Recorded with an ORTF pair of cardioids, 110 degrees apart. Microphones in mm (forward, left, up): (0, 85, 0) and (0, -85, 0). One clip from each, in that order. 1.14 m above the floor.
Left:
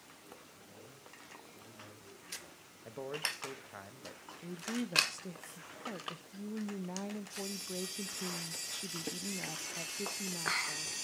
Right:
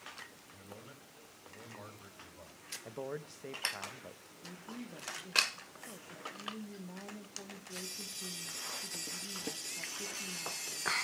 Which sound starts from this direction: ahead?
A man speaking, at 2.9 s.